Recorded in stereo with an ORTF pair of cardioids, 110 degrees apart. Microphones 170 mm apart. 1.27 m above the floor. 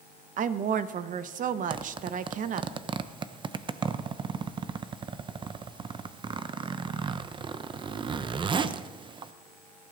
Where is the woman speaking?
50° right, 0.9 m.